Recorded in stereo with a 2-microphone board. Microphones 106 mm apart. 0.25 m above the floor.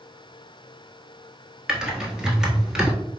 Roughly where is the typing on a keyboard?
Centre.